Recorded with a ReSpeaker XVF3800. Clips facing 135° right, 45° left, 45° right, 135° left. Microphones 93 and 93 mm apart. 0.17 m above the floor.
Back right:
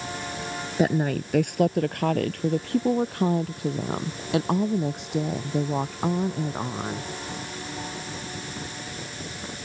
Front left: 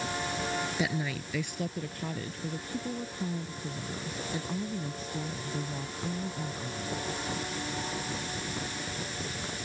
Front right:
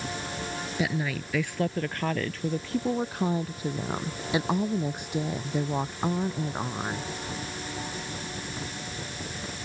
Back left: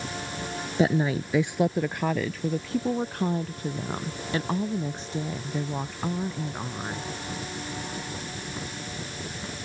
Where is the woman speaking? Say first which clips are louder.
Back right 9 dB, back left 7 dB; 175° right; by 7.1 s 115° right.